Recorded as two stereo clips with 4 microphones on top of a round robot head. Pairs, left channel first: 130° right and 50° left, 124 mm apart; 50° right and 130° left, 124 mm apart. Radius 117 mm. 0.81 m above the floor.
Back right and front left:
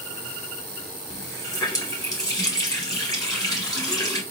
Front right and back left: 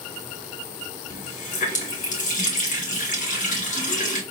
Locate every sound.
1.1 s a running tap: 65° right, 1.7 m